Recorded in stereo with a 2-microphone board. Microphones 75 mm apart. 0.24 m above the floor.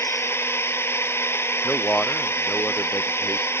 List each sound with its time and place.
0.0 s a drone: 35° left (ahead or behind)
1.6 s a man speaking: 20° left (ahead or behind)